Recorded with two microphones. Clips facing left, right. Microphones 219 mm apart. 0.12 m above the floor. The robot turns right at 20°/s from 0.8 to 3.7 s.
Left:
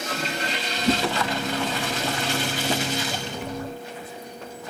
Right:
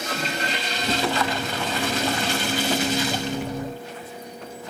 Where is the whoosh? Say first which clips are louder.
Left 5 dB; 55° left (ahead or behind), 2.5 m; by 1.0 s 50° left (ahead or behind), 2.5 m.